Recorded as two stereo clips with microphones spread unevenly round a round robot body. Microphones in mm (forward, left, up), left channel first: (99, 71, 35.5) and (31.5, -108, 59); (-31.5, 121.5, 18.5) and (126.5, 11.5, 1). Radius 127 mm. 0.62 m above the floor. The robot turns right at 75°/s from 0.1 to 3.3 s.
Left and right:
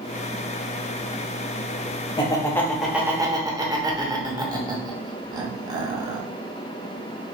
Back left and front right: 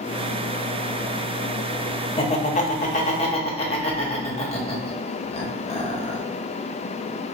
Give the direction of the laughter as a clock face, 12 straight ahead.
9 o'clock.